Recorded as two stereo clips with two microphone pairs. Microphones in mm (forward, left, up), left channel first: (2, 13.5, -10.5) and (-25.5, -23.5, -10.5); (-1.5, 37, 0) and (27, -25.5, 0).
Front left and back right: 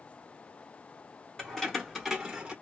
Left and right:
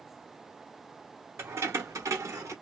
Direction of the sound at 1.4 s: 20° right.